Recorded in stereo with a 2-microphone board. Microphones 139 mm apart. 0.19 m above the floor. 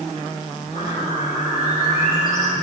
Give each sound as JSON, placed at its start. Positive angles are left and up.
{"t": 0.7, "sound": "a bird", "side_deg": 80, "distance_m": 4.5}